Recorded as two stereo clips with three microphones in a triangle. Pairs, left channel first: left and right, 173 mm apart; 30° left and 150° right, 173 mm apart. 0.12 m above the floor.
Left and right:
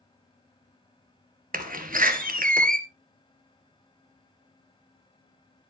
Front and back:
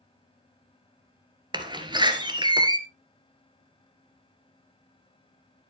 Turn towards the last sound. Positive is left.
turn(degrees=-90)